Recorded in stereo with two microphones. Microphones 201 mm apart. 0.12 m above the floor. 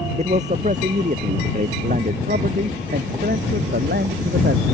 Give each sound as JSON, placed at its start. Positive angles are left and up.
{"t": 0.2, "sound": "a man speaking", "side_deg": -35}